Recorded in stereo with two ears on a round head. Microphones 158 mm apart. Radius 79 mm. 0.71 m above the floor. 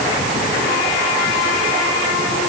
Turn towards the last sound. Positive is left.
No sound to turn to.